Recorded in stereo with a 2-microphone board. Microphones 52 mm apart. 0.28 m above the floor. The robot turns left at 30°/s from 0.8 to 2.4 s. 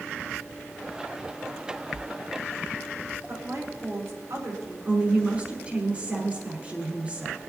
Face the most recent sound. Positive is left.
turn(degrees=-25)  # may be behind; listen again after turning